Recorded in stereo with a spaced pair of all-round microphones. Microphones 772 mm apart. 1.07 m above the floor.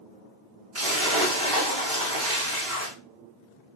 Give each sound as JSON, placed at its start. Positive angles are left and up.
{"t": 0.8, "sound": "a splash", "side_deg": -50, "distance_m": 1.9}